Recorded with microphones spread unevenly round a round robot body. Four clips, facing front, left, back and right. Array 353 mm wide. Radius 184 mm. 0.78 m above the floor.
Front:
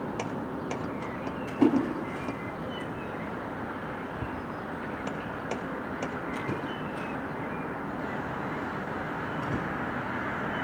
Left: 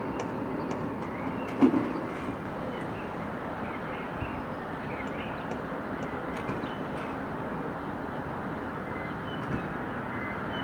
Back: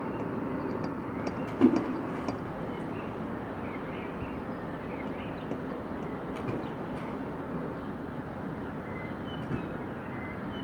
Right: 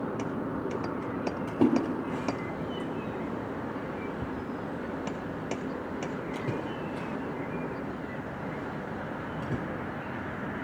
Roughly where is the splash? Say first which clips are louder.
Left 2 dB, front 1 dB; behind right.